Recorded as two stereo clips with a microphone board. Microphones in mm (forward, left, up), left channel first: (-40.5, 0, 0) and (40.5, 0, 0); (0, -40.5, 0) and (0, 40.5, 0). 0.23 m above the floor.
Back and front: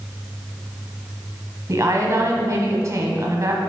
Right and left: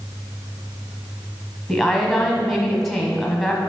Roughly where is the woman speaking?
Ahead.